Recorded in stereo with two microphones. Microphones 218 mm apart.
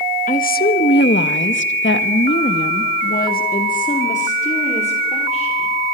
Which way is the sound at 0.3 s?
35° left (ahead or behind).